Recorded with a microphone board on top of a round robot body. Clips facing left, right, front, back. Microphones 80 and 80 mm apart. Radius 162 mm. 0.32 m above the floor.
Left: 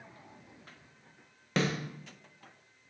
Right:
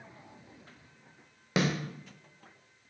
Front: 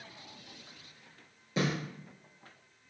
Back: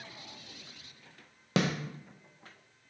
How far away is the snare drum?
About 0.6 m.